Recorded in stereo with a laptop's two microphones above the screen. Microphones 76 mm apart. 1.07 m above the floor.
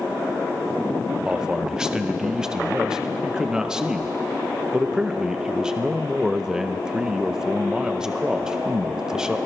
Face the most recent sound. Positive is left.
turn(degrees=-10)  # may be behind; listen again after turning